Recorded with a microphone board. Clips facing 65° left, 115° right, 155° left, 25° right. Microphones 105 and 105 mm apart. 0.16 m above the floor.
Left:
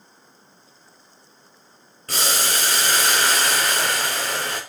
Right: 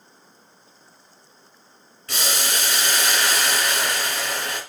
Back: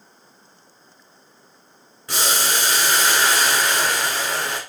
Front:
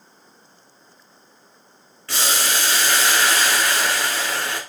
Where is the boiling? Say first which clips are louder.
Left 2 dB, back 1 dB; 90° left, 1.5 m.